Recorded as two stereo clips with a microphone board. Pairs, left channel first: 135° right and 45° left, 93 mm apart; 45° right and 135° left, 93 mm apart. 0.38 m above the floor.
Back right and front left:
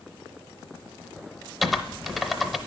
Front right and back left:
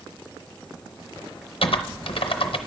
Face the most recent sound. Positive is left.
turn(degrees=-45)